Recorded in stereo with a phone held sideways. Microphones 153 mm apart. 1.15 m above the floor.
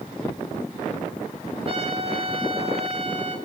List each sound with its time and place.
1.6 s a trumpet: 40° right (ahead or behind), 3 m